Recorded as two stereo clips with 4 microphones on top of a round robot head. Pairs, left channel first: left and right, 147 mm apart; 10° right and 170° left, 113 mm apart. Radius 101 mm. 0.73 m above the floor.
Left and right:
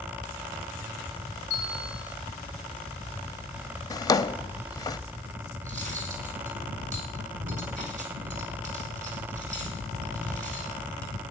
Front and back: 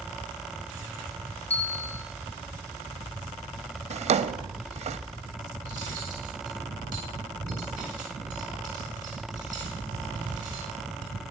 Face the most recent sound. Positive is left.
turn(degrees=-125)